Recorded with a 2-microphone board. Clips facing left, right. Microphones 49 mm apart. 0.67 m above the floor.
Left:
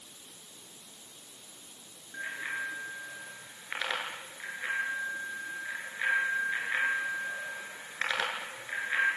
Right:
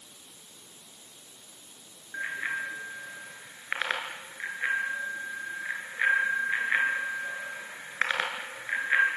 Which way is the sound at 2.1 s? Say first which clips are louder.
Right 4 dB; 35° right (ahead or behind).